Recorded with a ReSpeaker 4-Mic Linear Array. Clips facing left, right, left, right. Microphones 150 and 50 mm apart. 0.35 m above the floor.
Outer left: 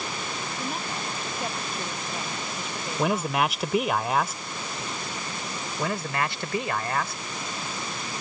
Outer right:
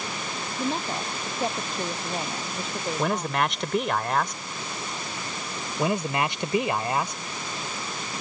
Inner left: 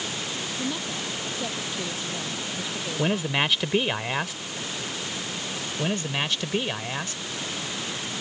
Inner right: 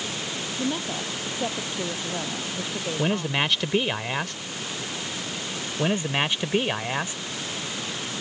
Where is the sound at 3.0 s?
5° left (ahead or behind).